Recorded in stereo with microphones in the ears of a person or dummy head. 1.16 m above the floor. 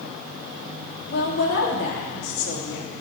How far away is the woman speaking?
About 2 m.